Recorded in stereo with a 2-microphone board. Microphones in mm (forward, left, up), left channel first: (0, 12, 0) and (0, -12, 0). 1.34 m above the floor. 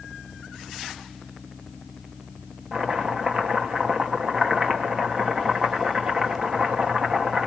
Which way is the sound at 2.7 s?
35° right (ahead or behind).